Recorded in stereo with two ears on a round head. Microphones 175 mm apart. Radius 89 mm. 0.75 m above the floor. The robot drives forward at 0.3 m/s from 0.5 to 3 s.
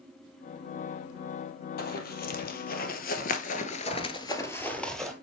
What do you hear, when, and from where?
1.8 s running footsteps: 50° left (ahead or behind), 1.5 m; by 5.1 s centre (ahead or behind), 1.3 m